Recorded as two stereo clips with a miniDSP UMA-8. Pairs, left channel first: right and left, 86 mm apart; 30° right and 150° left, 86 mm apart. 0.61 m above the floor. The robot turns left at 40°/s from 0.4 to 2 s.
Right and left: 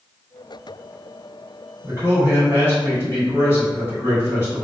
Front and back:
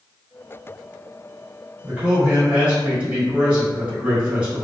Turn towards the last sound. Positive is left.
turn(degrees=-135)